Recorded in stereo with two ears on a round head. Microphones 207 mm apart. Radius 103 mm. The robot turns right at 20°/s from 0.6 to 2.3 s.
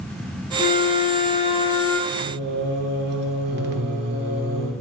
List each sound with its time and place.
0.6 s a flute: 45° left (ahead or behind), 1.0 m; by 2.0 s 15° left (ahead or behind), 1.0 m
2.1 s singing: 50° right (ahead or behind), 1.4 m; by 4.7 s 45° right (ahead or behind), 1.4 m